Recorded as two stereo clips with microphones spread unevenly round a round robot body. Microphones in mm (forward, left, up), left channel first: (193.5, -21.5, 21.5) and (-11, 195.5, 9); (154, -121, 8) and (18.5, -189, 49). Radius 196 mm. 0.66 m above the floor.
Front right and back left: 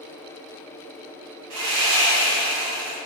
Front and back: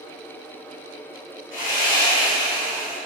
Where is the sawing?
110° left, 2.5 m.